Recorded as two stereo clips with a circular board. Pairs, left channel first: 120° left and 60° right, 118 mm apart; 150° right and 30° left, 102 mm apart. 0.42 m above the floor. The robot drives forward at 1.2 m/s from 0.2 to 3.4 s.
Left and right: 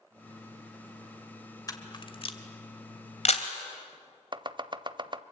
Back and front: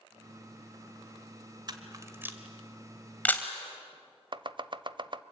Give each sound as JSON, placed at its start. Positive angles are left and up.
{"t": 1.7, "sound": "a camera shutter", "azimuth_deg": 65, "distance_m": 1.6}
{"t": 4.3, "sound": "chopping", "azimuth_deg": -10, "distance_m": 0.7}